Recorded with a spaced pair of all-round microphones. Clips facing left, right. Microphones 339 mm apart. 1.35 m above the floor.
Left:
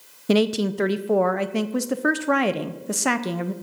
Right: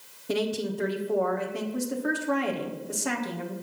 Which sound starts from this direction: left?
A woman speaking, at 0.3 s.